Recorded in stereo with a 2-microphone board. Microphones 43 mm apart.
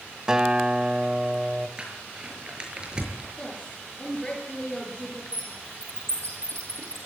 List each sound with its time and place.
0.3 s a guitar: 15° right (ahead or behind), 1.5 m
1.8 s crumpling: 20° right (ahead or behind), 5.5 m
3.4 s a woman speaking: 20° left (ahead or behind), 6.5 m
5.3 s a bird: 75° right (ahead or behind), 7.5 m